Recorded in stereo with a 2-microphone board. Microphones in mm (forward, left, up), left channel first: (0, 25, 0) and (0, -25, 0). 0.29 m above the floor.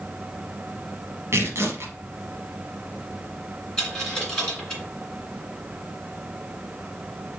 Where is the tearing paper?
70° right (ahead or behind), 0.9 m.